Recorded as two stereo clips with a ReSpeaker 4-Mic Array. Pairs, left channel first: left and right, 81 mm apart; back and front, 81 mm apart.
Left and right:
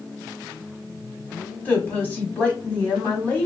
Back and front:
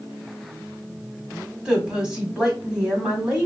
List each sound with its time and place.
1.6 s a woman speaking: 65° left, 1.2 m